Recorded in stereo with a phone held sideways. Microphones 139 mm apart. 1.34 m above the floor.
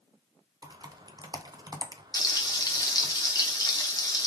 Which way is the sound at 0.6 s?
30° right (ahead or behind).